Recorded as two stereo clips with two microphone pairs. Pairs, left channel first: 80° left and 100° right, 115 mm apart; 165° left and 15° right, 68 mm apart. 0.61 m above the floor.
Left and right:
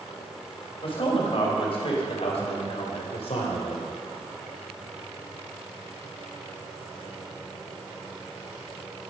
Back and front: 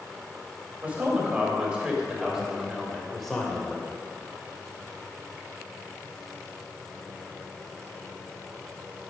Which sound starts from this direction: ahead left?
A man speaking, at 0.8 s.